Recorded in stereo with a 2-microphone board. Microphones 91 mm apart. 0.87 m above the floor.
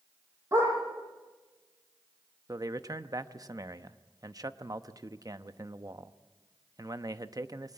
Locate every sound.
0.5 s a dog barking: 35° right (ahead or behind), 9.5 m
2.5 s a man speaking: 45° right (ahead or behind), 0.7 m